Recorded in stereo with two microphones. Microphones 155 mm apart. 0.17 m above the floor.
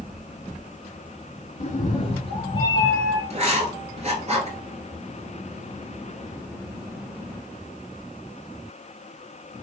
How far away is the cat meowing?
About 0.8 m.